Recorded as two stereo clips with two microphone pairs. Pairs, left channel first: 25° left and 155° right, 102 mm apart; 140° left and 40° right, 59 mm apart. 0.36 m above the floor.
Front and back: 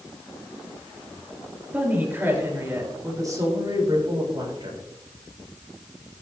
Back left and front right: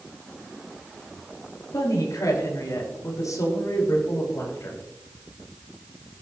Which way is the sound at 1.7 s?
130° left.